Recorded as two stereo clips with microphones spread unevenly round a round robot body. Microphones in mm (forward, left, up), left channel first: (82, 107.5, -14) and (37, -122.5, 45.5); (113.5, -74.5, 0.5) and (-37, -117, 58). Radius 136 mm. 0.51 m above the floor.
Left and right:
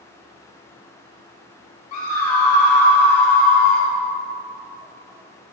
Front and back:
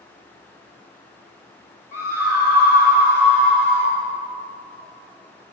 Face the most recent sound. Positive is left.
turn(degrees=60)